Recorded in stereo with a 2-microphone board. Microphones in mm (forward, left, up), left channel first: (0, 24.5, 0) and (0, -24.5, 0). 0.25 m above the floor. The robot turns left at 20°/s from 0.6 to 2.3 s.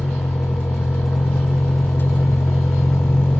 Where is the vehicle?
75° left (ahead or behind); by 3.4 s 55° left (ahead or behind).